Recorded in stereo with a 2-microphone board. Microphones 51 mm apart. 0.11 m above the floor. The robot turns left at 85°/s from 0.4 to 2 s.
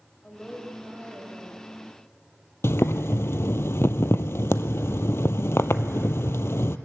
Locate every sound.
0.2 s a woman speaking: 15° left, 3.5 m; by 1.7 s 95° right, 3.5 m
2.6 s boiling: 60° left (ahead or behind), 0.5 m